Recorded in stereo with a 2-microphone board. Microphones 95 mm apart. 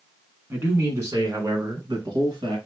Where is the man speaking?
20° right (ahead or behind), 1.2 m; by 2.6 s 50° right (ahead or behind), 1.9 m.